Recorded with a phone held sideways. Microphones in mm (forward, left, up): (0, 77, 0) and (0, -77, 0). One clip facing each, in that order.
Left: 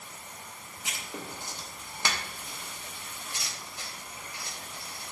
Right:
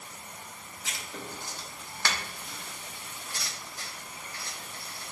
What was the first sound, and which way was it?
Writing, 20° left (ahead or behind).